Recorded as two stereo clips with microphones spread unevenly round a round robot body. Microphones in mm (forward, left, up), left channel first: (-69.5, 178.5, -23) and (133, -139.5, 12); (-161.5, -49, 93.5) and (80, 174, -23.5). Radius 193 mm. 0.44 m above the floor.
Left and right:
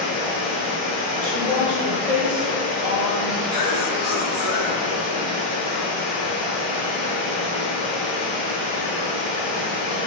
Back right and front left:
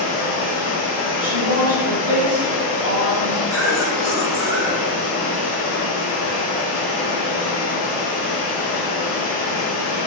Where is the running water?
60° right, 1.0 m.